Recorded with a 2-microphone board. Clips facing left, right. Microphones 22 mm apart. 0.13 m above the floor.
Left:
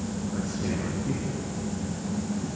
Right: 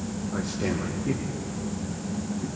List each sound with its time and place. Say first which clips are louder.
0.3 s a man speaking: right 3 dB; 65° right (ahead or behind), 3.5 m